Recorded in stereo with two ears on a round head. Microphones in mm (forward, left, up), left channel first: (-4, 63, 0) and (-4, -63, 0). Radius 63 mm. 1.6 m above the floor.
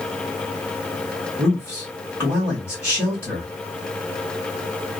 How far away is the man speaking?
About 1.0 m.